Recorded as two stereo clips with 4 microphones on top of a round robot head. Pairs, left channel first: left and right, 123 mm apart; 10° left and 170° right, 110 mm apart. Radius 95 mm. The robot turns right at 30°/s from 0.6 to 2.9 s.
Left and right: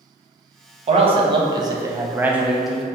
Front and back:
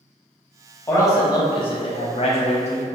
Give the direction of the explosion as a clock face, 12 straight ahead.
I don't hear an explosion.